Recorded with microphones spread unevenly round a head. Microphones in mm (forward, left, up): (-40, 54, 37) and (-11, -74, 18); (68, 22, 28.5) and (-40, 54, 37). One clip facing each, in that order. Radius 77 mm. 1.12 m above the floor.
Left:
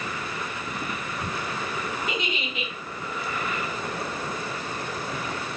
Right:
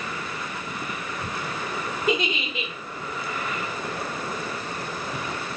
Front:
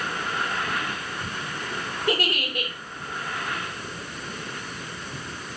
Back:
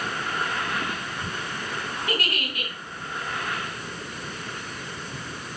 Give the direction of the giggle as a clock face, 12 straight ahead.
3 o'clock.